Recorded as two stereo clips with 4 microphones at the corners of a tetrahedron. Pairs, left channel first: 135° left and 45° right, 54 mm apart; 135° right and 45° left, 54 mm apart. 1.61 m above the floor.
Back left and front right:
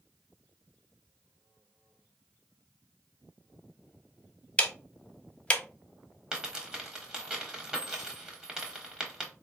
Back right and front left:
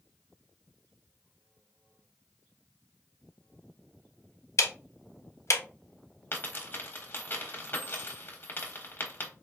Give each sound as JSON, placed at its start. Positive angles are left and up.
{"t": 4.6, "sound": "ticking", "azimuth_deg": -160, "distance_m": 0.6}
{"t": 6.3, "sound": "a dropped coin", "azimuth_deg": -120, "distance_m": 1.1}